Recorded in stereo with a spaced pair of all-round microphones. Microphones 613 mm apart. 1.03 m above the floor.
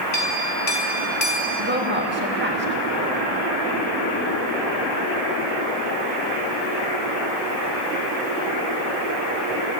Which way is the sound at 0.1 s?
65° left (ahead or behind).